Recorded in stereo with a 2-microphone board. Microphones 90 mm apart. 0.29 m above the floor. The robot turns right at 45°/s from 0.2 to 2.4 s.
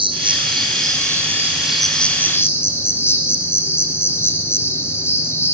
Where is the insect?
70° right, 1.9 m; by 5.5 s 30° left, 1.9 m.